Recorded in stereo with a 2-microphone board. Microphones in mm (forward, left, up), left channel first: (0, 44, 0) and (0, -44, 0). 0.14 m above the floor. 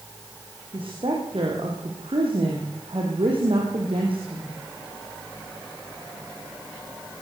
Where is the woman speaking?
75° right (ahead or behind), 7 m.